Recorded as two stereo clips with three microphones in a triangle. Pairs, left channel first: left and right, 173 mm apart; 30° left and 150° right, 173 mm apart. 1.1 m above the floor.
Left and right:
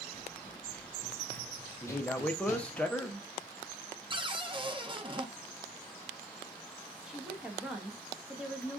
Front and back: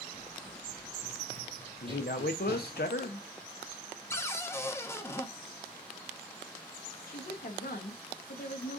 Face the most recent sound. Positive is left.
turn(degrees=-5)